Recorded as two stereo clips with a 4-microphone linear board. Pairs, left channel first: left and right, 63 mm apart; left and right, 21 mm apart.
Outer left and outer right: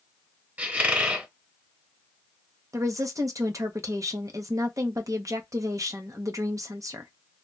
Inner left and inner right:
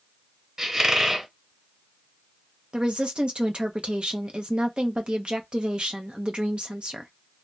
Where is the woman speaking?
55° right (ahead or behind), 0.7 m.